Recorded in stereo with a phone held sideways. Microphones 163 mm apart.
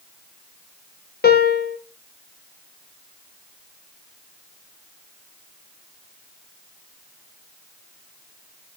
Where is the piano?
70° left (ahead or behind), 0.5 m.